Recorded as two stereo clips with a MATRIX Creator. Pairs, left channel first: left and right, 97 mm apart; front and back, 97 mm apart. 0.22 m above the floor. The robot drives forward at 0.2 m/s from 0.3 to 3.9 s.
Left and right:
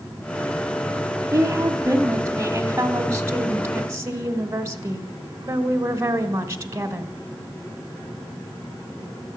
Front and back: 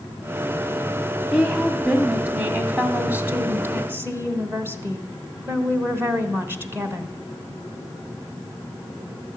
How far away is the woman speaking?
About 1.1 m.